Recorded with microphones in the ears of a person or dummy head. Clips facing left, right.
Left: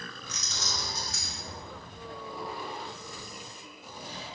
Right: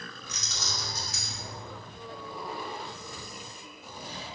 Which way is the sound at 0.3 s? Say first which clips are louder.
Left 1 dB; 65° right (ahead or behind).